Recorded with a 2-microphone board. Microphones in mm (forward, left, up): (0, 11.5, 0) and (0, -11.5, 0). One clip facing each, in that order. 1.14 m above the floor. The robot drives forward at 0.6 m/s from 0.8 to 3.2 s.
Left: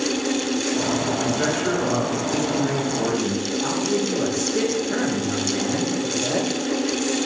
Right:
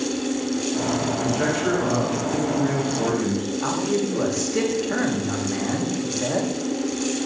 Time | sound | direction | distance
1.2 | a man speaking | 25° right (ahead or behind) | 5 m
3.6 | a man speaking | 45° right (ahead or behind) | 2.5 m